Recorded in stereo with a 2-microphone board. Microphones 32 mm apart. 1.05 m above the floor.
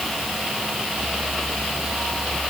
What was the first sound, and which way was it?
Only background noise.